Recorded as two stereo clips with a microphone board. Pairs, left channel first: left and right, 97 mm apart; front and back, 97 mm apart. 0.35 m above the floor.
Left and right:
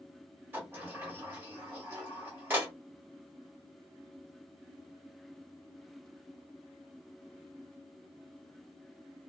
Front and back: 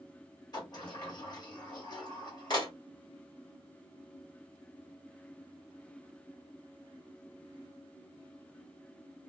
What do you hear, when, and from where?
0.5 s a sliding door: 30° right, 1.8 m